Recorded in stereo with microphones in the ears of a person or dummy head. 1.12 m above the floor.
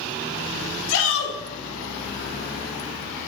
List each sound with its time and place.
0.9 s a shout: 70° left (ahead or behind), 2.5 m